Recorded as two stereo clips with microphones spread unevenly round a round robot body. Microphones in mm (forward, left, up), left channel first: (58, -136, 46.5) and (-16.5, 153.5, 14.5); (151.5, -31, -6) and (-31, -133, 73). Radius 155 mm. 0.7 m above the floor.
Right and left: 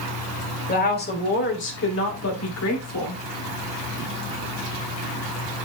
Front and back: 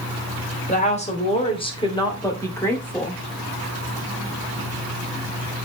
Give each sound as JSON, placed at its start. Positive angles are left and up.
{"t": 0.7, "sound": "a woman speaking", "azimuth_deg": -15, "distance_m": 3.5}